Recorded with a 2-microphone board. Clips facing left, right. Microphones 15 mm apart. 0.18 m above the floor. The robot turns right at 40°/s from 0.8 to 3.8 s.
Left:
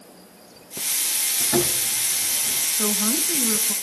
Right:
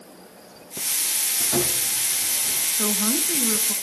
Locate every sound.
1.4 s sawing: 85° left, 3.5 m; by 2.7 s 135° left, 3.5 m
2.8 s a woman speaking: 50° right, 1.6 m; by 3.7 s 10° right, 1.6 m